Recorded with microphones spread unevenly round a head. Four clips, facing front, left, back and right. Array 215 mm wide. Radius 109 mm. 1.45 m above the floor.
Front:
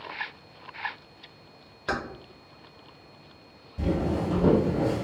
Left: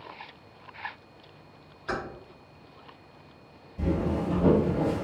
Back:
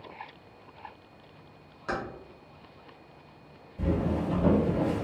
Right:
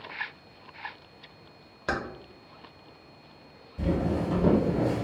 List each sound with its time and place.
1.9 s keys jangling: 70° right, 0.9 m
3.8 s footsteps: 10° left, 1.7 m; by 5.0 s 70° left, 1.5 m